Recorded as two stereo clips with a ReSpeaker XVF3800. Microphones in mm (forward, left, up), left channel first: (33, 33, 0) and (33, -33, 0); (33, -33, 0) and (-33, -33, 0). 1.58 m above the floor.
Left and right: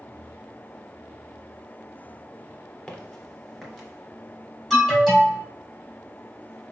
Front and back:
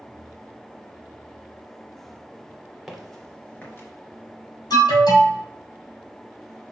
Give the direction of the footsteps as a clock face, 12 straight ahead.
8 o'clock.